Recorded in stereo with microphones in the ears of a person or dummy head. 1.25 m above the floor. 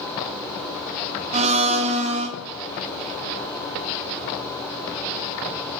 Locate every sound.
1.3 s a blender: 30° right (ahead or behind), 1.2 m